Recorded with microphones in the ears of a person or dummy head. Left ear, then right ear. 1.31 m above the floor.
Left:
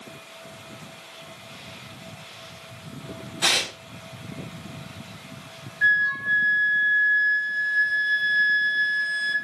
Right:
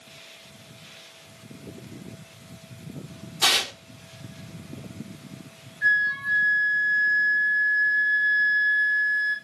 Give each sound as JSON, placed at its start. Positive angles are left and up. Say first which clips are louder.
{"t": 3.4, "sound": "tearing paper", "louder": "right 1 dB", "side_deg": -20, "distance_m": 1.1}
{"t": 5.8, "sound": "a flute", "louder": "left 1 dB", "side_deg": 50, "distance_m": 1.9}